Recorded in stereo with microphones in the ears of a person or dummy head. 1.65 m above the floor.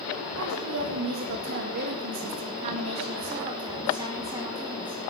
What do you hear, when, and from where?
0.4 s a woman speaking: 75° right (ahead or behind), 1.8 m; by 5.1 s 15° right (ahead or behind), 2.5 m